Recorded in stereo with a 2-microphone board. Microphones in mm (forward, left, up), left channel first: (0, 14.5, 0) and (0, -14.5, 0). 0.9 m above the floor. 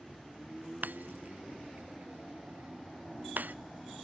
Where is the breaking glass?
80° right.